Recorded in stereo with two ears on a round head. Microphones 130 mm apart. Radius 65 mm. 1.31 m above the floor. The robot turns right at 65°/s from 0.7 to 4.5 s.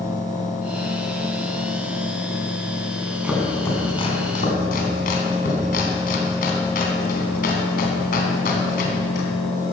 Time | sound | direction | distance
3.2 | chopping | 10° right (ahead or behind) | 3 m